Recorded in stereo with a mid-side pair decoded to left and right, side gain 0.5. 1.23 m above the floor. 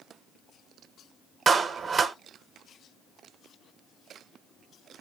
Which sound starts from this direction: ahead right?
A clap, at 1.5 s.